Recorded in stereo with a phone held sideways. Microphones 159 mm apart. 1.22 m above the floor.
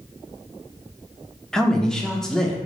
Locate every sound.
1.5 s a man speaking: 5° left (ahead or behind), 0.6 m